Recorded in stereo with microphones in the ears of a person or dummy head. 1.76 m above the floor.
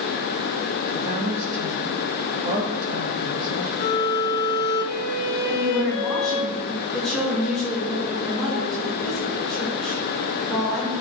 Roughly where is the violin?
Left.